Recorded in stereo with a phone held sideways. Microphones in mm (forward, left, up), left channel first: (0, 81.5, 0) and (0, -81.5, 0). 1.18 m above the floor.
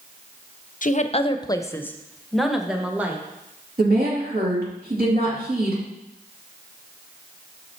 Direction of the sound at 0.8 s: 55° left (ahead or behind).